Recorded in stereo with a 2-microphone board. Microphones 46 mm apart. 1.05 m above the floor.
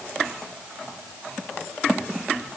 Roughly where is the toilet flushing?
No toilet flushing in this recording.